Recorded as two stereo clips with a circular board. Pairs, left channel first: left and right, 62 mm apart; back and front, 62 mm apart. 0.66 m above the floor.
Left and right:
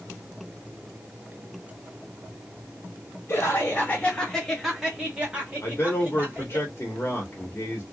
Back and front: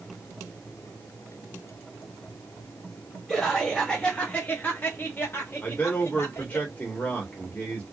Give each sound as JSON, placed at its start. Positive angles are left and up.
{"t": 3.3, "sound": "laughter", "azimuth_deg": 85, "distance_m": 1.1}
{"t": 5.6, "sound": "a man speaking", "azimuth_deg": 120, "distance_m": 1.1}